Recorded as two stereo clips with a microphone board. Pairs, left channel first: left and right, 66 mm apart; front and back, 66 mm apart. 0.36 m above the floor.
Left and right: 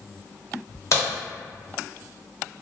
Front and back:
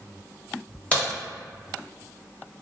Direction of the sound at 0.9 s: 65° left.